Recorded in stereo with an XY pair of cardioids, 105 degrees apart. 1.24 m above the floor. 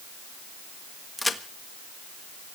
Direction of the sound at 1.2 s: 15° left.